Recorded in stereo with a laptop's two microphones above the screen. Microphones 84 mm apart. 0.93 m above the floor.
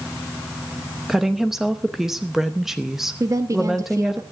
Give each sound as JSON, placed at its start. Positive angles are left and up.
{"t": 1.1, "sound": "a woman speaking", "side_deg": -5, "distance_m": 0.8}
{"t": 3.2, "sound": "a woman speaking", "side_deg": -40, "distance_m": 1.1}